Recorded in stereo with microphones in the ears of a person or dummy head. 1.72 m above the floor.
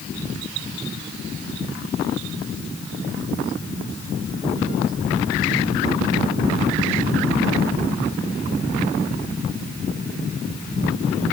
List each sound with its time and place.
Only background noise.